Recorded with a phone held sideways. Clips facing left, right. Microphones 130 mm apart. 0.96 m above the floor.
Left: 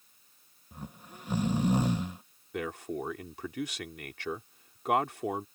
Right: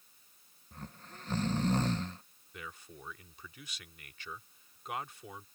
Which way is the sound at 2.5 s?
75° left (ahead or behind).